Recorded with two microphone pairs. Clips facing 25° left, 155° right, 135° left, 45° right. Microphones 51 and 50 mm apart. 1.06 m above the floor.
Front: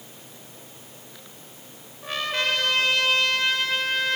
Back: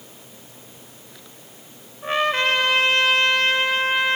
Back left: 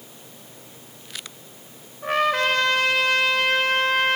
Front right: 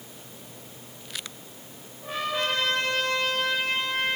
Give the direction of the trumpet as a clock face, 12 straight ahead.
7 o'clock.